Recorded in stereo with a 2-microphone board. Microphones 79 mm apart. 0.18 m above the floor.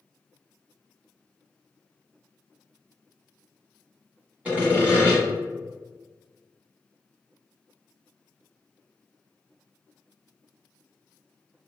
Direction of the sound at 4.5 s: 15° right (ahead or behind).